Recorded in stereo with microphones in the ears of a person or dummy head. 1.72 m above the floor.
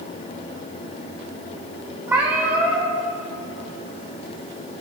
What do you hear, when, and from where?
2.1 s a cat meowing: 10° right (ahead or behind), 2.5 m